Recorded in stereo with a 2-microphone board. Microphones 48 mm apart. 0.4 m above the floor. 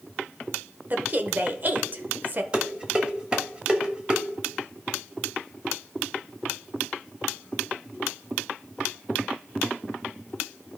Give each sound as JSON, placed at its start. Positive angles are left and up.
{"t": 0.9, "sound": "a woman speaking", "side_deg": -40, "distance_m": 1.0}
{"t": 2.5, "sound": "dishes clattering", "side_deg": -20, "distance_m": 1.2}